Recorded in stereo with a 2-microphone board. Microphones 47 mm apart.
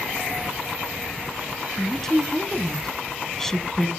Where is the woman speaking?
10° left (ahead or behind), 1.1 m.